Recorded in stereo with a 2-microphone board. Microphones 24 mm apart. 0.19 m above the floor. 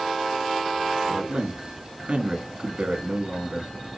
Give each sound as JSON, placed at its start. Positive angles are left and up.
{"t": 1.1, "sound": "a man speaking", "side_deg": -55, "distance_m": 3.0}